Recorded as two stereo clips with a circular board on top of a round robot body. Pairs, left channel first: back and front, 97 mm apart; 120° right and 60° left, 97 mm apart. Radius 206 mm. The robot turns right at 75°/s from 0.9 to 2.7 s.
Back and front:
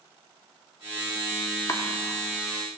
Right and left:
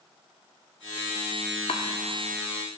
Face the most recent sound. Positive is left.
turn(degrees=-50)